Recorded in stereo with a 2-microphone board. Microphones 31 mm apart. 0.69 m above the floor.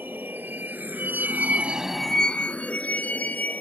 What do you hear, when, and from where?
0.0 s a vehicle: 85° right; by 3.6 s 60° left (ahead or behind)